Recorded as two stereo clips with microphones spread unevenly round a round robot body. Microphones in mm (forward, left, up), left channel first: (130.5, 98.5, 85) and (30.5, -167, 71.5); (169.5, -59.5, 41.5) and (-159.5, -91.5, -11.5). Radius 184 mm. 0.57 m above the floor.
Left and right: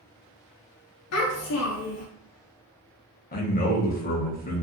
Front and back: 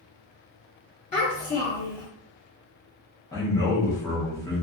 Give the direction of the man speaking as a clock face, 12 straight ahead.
9 o'clock.